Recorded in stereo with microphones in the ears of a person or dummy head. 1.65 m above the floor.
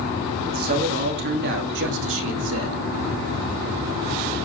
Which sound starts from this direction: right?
A man speaking, at 0.5 s.